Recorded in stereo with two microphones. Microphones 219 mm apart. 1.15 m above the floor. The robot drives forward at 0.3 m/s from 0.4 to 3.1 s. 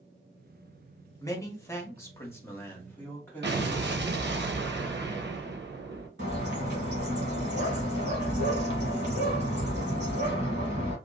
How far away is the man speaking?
About 0.8 m.